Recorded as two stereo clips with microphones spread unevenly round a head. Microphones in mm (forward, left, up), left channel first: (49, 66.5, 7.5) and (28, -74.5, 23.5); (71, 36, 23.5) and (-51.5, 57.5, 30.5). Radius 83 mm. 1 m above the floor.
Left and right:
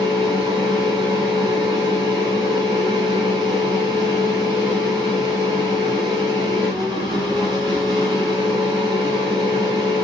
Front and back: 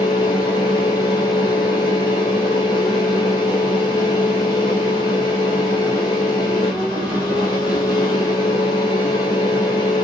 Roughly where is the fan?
Ahead right.